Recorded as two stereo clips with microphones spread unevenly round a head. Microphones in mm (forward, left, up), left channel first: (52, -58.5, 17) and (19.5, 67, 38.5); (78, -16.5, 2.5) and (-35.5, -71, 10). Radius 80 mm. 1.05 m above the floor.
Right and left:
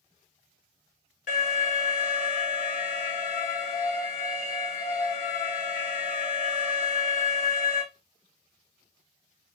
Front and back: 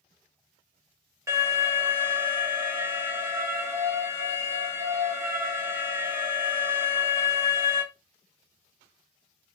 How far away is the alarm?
About 2.5 m.